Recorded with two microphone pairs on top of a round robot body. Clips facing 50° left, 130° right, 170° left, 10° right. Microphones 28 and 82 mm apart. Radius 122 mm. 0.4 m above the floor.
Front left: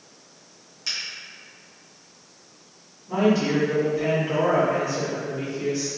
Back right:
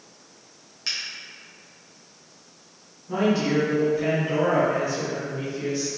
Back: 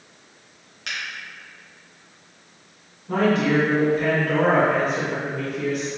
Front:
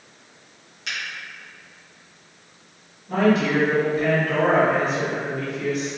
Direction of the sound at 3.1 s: 150° left.